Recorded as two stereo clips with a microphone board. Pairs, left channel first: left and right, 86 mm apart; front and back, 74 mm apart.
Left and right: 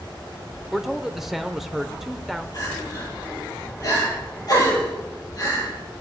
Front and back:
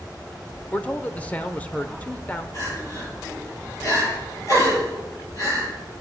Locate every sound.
0.7 s a man speaking: 10° right, 0.9 m
2.5 s crying: 45° left, 8.5 m